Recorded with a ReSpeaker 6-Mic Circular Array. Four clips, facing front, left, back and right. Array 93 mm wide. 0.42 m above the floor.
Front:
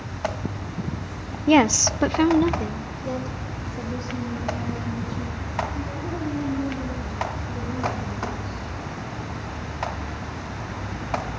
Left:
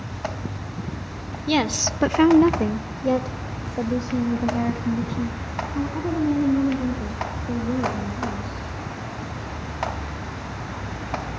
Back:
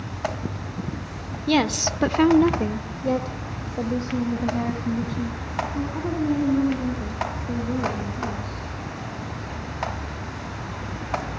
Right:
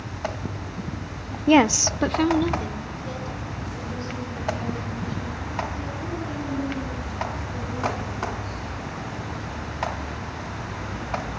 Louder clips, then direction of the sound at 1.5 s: Right 5 dB, front 4 dB; 50° right.